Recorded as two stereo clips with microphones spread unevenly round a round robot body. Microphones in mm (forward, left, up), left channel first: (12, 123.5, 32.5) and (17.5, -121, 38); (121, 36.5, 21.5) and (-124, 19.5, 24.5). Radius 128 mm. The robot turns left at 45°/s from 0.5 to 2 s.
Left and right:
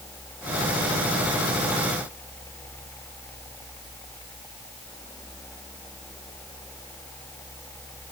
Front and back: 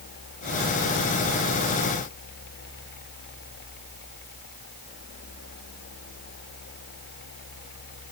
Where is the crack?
No crack in this recording.